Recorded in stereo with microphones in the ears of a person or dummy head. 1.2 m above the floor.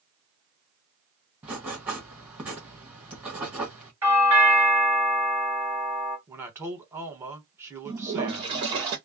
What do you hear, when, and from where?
1.4 s writing: 5° right (ahead or behind), 1.1 m
4.0 s a doorbell: 10° right (ahead or behind), 1.0 m
6.3 s a man speaking: 10° right (ahead or behind), 1.0 m
7.8 s a toilet flushing: 20° right (ahead or behind), 0.7 m